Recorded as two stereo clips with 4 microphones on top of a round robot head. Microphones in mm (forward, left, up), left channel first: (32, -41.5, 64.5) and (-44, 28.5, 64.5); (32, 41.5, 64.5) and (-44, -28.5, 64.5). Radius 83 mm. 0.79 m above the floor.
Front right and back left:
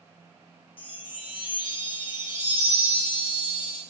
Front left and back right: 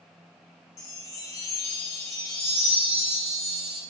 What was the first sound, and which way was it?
A chime, 15° right.